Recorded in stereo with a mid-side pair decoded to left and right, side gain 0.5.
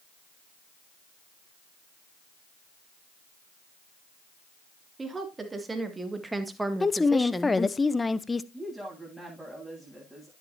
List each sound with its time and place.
5.0 s a woman speaking: 25° right, 3.5 m; by 7.8 s 35° left, 0.8 m
6.8 s a woman speaking: 20° left, 0.8 m
8.5 s a woman speaking: 5° right, 9 m